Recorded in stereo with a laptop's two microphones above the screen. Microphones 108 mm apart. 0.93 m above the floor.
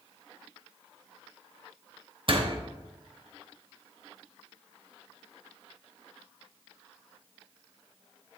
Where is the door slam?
50° right (ahead or behind), 0.8 m.